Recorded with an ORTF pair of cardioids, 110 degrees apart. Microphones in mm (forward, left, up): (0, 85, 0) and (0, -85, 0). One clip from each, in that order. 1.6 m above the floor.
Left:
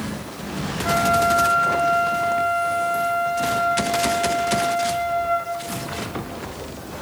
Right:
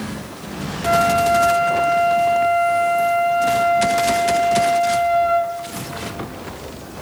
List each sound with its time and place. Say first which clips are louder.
0.8 s a flute: right 3 dB; 20° right, 1.3 m